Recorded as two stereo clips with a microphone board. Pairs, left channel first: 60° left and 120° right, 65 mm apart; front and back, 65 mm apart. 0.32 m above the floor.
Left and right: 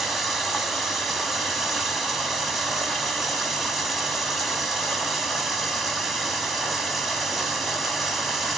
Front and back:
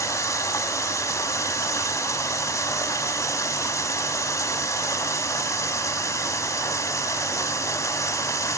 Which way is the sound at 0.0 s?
30° right.